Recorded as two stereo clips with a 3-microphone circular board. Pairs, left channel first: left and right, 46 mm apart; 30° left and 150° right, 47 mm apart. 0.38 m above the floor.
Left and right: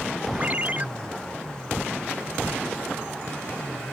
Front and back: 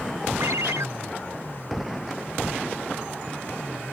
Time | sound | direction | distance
0.4 | a ringtone | 145° right | ?